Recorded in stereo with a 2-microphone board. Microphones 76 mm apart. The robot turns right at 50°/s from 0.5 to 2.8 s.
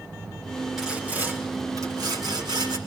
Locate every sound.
0.8 s sawing: 175° right, 4 m; by 2.8 s 75° right, 4 m